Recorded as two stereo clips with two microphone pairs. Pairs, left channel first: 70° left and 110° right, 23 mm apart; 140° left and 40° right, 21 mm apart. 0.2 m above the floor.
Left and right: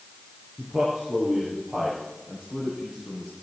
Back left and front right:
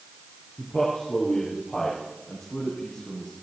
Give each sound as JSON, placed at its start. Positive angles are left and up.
{"t": 0.6, "sound": "a man speaking", "azimuth_deg": -165, "distance_m": 4.0}